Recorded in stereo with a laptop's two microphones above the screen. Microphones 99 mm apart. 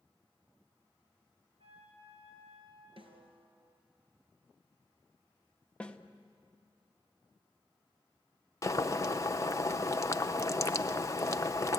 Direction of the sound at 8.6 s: 35° left (ahead or behind).